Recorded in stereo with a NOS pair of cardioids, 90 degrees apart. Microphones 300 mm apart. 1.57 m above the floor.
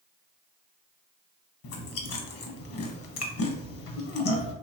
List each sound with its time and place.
1.6 s chewing: 55° left, 0.9 m